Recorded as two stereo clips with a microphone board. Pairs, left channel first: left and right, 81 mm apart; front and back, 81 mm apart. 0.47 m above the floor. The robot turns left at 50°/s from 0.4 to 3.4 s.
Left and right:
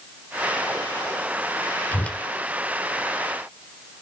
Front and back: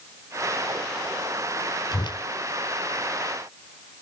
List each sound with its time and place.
1.9 s a whoosh: 25° left, 0.5 m; by 2.2 s 10° left, 0.5 m